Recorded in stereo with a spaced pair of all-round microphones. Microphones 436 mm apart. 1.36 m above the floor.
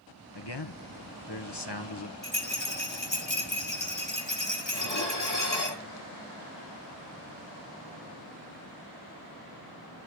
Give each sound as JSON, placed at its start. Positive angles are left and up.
{"t": 0.3, "sound": "a man speaking", "side_deg": 65, "distance_m": 1.3}
{"t": 2.2, "sound": "a rattle", "side_deg": 80, "distance_m": 2.5}
{"t": 4.7, "sound": "dishes clattering", "side_deg": 65, "distance_m": 2.5}